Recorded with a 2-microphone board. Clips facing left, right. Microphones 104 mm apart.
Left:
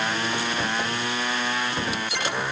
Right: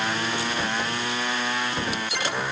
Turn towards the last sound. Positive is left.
No sound to turn to.